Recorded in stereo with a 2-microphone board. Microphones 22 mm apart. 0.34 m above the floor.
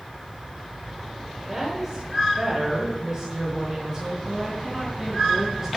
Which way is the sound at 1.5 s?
15° right (ahead or behind).